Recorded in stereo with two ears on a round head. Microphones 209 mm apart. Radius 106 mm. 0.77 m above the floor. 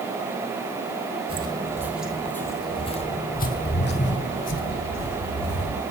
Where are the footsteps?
25° right (ahead or behind), 1.6 m; by 5.8 s 70° left (ahead or behind), 3.5 m.